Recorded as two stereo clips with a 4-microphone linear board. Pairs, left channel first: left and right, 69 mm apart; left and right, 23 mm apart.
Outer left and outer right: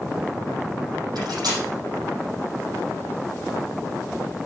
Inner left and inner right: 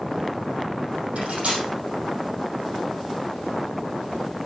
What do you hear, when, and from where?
1.1 s cutlery clinking: 80° right, 5 m